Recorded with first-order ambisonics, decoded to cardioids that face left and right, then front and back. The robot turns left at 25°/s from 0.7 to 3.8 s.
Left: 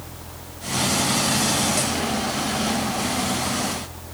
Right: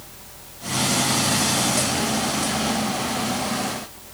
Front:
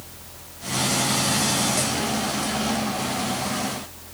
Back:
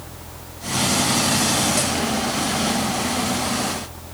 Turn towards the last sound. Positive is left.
No sound to turn to.